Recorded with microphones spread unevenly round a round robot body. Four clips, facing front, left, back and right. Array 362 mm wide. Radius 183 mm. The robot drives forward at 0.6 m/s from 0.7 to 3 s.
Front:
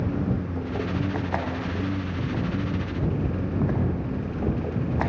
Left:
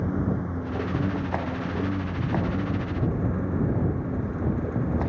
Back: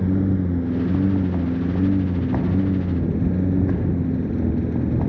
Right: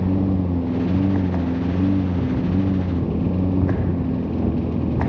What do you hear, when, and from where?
0.0 s a lawn mower: 140° right